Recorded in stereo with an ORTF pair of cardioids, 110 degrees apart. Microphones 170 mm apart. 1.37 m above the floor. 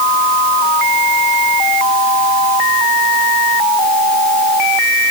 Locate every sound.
Only background noise.